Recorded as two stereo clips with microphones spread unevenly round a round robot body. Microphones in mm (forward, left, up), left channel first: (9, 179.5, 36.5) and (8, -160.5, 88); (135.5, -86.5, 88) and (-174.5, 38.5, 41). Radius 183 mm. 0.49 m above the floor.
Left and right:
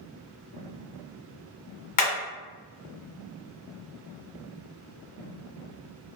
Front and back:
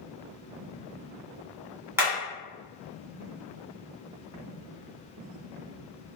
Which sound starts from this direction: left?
Hammering, at 2.0 s.